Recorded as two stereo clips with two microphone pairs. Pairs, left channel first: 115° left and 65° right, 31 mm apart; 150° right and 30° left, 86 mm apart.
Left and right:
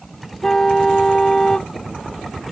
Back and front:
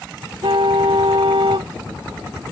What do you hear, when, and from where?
0.4 s a car horn: 45° left